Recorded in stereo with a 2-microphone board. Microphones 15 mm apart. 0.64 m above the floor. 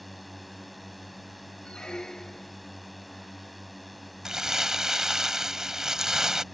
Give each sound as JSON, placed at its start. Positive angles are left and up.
{"t": 0.0, "sound": "a drone", "side_deg": 10}
{"t": 1.6, "sound": "a squeak", "side_deg": 85}
{"t": 4.2, "sound": "crumpling", "side_deg": -30}